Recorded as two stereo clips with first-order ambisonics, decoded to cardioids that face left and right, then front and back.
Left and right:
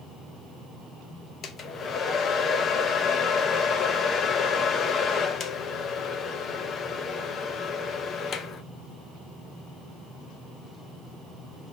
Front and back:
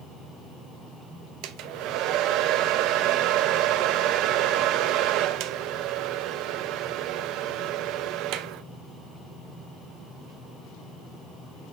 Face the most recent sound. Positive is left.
turn(degrees=150)